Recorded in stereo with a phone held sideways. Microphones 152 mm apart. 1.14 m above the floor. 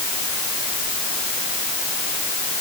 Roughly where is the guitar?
I don't hear a guitar.